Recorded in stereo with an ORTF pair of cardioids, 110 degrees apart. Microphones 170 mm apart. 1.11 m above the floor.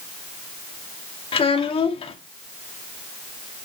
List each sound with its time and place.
1.3 s a child speaking: 35° left, 1.6 m